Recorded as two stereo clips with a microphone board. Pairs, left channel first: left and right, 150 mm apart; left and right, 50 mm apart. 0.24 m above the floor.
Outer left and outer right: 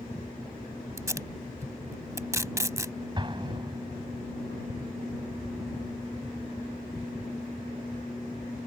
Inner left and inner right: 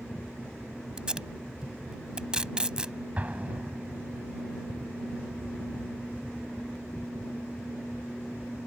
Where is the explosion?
35° right (ahead or behind).